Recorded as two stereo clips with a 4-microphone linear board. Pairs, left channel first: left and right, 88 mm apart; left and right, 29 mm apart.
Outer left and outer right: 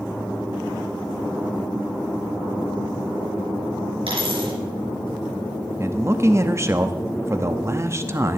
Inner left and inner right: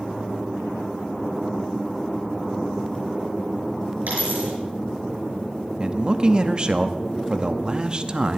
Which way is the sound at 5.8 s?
35° right (ahead or behind).